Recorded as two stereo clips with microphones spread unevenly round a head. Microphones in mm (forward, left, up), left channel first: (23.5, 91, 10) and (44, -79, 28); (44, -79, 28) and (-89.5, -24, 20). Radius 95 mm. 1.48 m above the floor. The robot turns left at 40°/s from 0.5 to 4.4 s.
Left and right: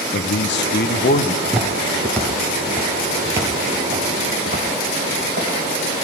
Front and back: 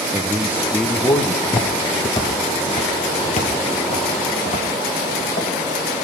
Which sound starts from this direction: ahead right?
Footsteps, at 1.4 s.